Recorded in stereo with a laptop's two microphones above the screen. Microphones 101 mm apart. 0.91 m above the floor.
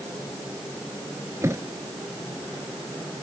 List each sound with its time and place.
1.4 s a thud: 30° right (ahead or behind)